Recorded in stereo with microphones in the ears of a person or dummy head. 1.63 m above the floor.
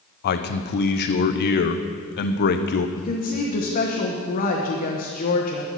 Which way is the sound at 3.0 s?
40° left (ahead or behind).